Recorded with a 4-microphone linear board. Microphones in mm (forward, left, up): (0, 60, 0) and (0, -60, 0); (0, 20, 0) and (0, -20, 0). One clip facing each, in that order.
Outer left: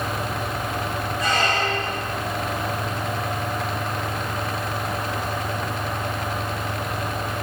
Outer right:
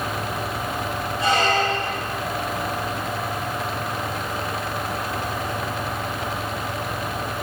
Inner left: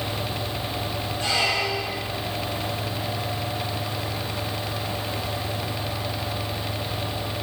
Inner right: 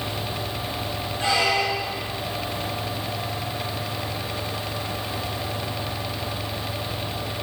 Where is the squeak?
30° right (ahead or behind), 4 m.